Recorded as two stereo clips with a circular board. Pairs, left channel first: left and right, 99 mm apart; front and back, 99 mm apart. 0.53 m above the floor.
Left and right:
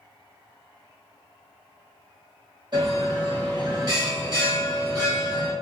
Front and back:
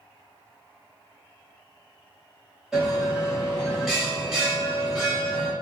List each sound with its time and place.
2.7 s a bell: 100° right, 1.6 m